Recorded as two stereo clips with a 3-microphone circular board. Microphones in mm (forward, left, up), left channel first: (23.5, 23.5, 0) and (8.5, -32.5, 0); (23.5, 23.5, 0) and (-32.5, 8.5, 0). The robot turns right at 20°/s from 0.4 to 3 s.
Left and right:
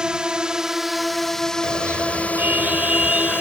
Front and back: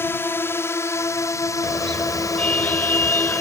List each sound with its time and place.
0.0 s a drone: 30° right; by 3.4 s 25° left
1.6 s a car horn: 60° right; by 3.4 s 35° right